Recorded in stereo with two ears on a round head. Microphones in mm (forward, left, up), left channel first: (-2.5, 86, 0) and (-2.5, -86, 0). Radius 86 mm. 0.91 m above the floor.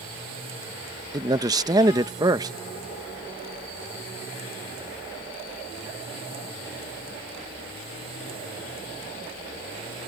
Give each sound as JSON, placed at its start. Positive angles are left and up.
{"t": 1.1, "sound": "a man speaking", "side_deg": -20}